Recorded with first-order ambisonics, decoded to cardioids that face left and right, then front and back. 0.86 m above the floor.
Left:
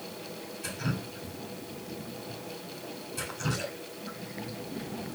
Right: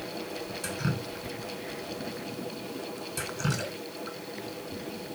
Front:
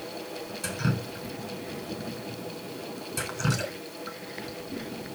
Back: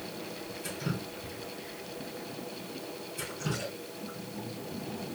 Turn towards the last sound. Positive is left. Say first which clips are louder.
# even, front 6 dB
turn(degrees=-30)